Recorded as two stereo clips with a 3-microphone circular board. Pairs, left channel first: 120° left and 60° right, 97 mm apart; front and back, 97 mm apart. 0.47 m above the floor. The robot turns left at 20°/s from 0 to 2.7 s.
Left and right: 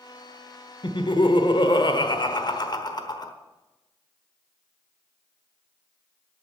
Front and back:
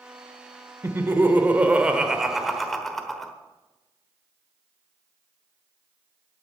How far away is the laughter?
About 1.2 m.